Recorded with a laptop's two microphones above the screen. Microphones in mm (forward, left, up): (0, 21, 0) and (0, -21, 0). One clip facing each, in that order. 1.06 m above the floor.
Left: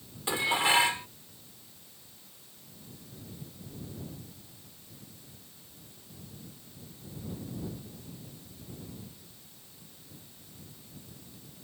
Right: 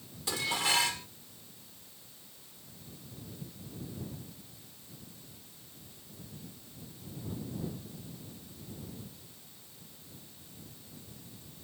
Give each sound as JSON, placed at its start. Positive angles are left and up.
{"t": 0.3, "sound": "dishes clattering", "side_deg": 30}